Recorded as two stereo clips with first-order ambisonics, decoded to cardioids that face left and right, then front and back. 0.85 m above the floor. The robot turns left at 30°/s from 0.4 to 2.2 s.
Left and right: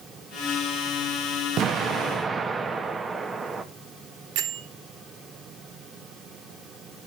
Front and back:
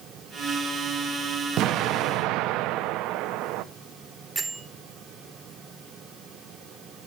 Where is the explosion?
140° right, 0.7 m; by 3.6 s 160° right, 0.7 m.